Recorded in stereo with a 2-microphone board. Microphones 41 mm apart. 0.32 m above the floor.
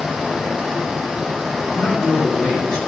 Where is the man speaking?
20° left (ahead or behind), 4.5 m.